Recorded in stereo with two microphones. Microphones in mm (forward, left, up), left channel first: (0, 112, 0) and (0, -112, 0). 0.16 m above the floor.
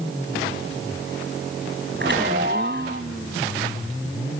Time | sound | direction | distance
2.0 | a chime | 50° right (ahead or behind) | 5 m